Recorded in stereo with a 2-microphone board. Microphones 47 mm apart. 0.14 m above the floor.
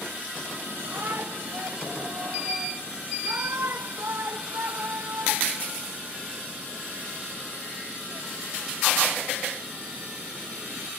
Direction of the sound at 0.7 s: 55° right (ahead or behind).